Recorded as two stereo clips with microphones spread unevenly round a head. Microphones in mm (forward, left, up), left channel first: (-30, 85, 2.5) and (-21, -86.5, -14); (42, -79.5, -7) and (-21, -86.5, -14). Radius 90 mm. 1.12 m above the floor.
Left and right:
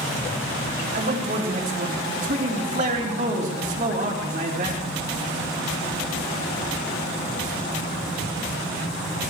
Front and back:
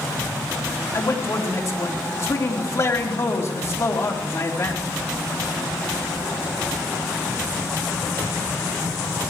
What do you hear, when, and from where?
0.9 s a man speaking: 35° right, 3.5 m